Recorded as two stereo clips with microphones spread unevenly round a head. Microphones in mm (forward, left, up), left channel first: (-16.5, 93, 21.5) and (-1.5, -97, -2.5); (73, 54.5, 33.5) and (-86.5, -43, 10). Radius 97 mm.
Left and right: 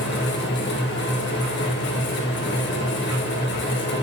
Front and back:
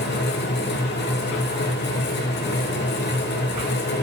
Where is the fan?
60° left, 2.5 m.